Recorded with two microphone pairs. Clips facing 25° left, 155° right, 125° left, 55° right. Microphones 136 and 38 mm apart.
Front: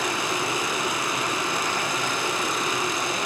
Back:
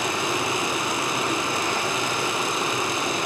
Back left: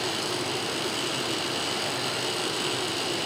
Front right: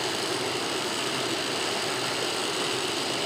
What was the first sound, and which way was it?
Running water, 90° right.